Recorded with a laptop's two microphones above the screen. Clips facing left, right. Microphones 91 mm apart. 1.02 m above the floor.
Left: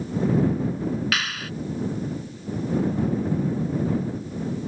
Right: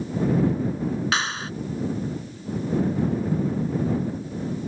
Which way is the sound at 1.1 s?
30° right (ahead or behind).